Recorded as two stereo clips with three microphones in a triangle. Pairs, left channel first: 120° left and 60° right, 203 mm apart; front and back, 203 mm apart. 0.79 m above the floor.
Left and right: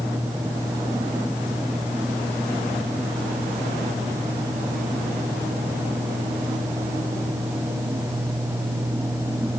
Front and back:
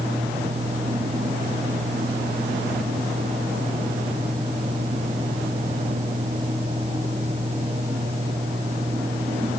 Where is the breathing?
I don't hear breathing.